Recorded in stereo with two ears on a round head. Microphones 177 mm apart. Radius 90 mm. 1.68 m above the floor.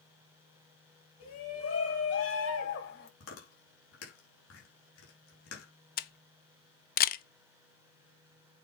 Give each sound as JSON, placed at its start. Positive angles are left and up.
{"t": 1.2, "sound": "a shout", "side_deg": 75, "distance_m": 4.0}
{"t": 3.2, "sound": "chewing", "side_deg": 80, "distance_m": 4.5}
{"t": 6.0, "sound": "a camera shutter", "side_deg": 50, "distance_m": 0.7}